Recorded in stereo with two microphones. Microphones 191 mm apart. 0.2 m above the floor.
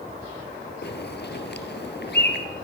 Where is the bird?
60° left (ahead or behind), 3.5 m.